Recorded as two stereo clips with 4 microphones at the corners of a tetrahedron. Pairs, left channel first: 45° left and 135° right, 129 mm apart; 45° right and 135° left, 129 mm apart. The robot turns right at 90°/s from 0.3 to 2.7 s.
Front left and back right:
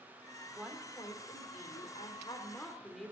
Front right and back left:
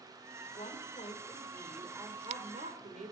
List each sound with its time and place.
0.5 s a woman speaking: 65° right, 3 m; by 3.1 s 135° left, 3 m